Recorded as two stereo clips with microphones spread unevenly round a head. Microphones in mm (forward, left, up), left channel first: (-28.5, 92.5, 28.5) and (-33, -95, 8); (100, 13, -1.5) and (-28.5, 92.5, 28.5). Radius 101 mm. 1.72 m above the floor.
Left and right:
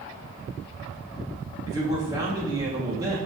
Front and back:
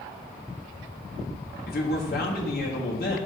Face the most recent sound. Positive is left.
turn(degrees=-15)